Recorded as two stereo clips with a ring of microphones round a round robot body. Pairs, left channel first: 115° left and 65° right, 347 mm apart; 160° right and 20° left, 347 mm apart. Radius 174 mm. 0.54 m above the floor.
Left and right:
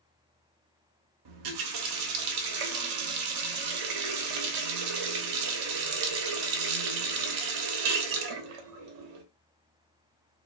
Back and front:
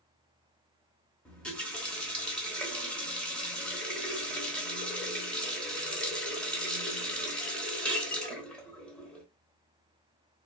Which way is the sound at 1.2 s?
70° right.